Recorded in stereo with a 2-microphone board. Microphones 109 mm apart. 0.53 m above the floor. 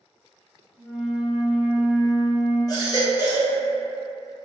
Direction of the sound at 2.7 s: 35° left (ahead or behind).